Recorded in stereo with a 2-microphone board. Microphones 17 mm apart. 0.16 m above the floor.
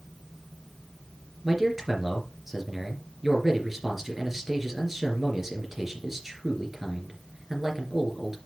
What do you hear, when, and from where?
1.4 s a man speaking: 15° right (ahead or behind), 3 m